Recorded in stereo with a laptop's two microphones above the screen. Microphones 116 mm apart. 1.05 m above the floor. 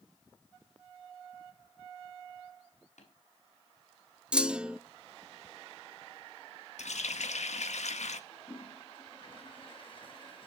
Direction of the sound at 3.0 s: 85° left.